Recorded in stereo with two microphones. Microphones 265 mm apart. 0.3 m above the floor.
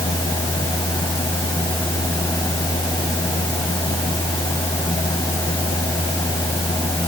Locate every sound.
Only background noise.